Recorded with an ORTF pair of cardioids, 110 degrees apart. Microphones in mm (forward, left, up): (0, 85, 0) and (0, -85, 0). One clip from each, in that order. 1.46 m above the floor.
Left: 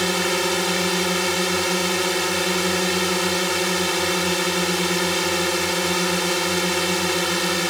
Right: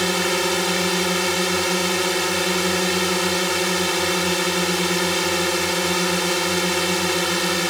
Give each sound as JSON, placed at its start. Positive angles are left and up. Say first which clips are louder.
{"t": 0.0, "sound": "a drone", "louder": "right 1 dB", "azimuth_deg": 0}